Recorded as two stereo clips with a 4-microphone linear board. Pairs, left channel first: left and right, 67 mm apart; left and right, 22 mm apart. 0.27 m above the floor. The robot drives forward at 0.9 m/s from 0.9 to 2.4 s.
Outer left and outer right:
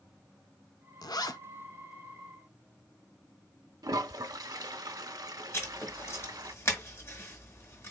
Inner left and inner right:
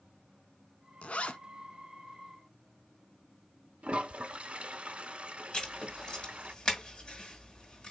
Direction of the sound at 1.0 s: 80° left.